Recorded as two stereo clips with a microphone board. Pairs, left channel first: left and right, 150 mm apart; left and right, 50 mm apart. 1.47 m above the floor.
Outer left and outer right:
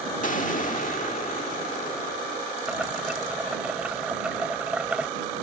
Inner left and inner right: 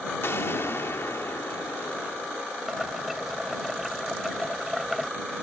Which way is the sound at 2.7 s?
5° right (ahead or behind).